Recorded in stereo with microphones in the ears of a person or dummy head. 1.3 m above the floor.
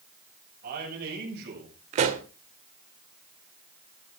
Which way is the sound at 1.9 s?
40° right (ahead or behind).